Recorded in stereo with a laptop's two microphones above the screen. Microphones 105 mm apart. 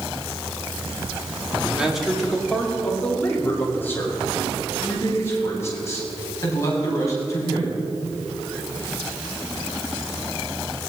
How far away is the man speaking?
About 2.5 m.